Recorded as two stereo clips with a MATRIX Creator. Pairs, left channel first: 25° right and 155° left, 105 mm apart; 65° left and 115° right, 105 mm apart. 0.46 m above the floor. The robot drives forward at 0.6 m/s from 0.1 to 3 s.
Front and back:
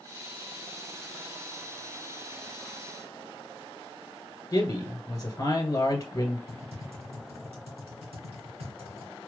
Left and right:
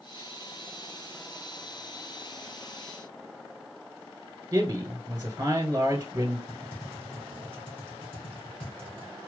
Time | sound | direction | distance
4.5 | a man speaking | 70° right | 1.6 m
6.5 | typing on a keyboard | 145° left | 2.5 m